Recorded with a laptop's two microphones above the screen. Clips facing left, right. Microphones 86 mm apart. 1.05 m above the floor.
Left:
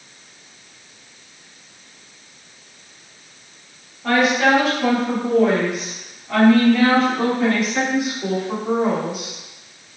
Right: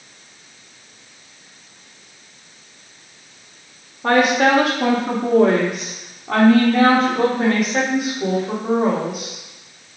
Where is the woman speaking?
55° right (ahead or behind), 1.7 m; by 9.3 s 75° right (ahead or behind), 4.5 m.